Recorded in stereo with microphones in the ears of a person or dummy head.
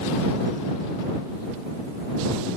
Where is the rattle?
I don't hear a rattle.